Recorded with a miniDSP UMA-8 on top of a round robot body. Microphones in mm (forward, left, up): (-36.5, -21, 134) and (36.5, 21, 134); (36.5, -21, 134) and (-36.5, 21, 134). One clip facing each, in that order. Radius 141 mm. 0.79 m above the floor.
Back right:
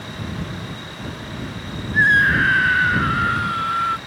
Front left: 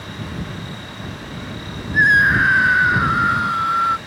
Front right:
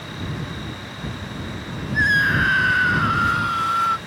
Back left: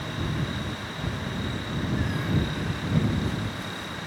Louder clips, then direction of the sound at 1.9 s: Front left 2 dB, front right 12 dB; 45° right.